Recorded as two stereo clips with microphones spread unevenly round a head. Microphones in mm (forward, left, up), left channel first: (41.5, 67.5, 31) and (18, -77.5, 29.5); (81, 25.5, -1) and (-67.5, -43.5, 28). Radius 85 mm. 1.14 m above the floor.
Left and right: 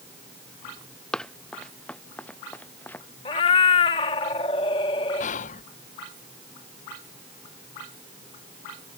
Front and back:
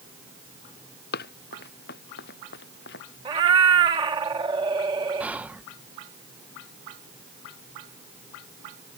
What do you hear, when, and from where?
1.1 s running footsteps: 5° right; by 3.1 s 5° left
3.2 s a cat meowing: 140° left
5.2 s whispering: 120° left